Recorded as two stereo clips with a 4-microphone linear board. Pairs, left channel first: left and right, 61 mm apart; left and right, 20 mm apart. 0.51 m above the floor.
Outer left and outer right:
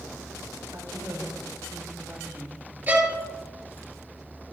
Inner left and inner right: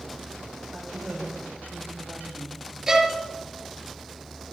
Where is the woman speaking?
65° right (ahead or behind), 2.5 m.